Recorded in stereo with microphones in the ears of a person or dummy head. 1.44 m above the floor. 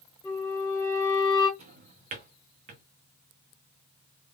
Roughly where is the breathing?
I don't hear breathing.